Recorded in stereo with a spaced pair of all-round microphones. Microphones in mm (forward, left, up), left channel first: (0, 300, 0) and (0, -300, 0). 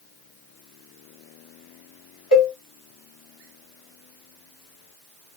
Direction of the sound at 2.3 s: 35° left (ahead or behind).